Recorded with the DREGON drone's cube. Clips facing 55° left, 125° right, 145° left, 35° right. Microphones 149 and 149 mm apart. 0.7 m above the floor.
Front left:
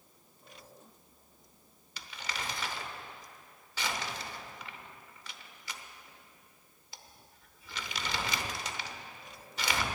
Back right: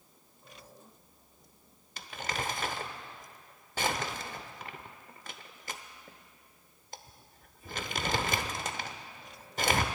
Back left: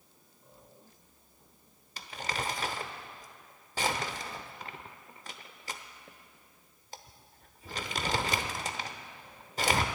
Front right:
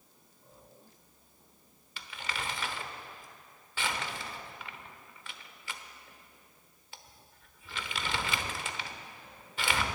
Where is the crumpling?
165° right, 0.9 m.